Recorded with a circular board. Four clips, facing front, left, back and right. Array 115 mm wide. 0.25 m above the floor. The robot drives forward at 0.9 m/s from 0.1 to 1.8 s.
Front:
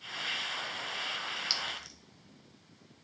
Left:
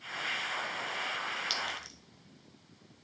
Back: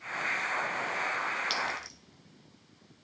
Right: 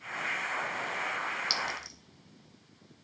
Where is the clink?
50° right, 0.5 m; by 2.0 s 130° right, 0.5 m.